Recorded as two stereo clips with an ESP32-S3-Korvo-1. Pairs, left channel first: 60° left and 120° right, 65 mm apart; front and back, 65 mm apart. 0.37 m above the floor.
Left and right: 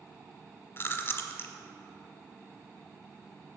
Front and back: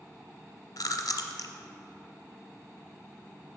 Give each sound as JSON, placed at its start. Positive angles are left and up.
{"t": 0.8, "sound": "chewing", "azimuth_deg": 10, "distance_m": 0.6}